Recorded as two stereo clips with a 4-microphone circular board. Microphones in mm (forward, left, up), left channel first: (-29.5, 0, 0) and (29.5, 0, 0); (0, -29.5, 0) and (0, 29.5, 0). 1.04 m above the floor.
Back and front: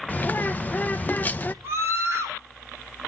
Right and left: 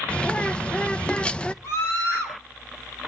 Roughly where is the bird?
Behind right.